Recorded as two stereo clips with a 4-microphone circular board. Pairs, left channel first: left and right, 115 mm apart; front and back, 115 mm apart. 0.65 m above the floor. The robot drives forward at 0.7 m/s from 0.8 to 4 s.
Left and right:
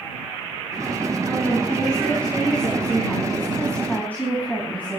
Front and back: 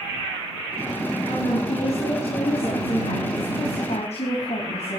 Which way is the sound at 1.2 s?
10° left.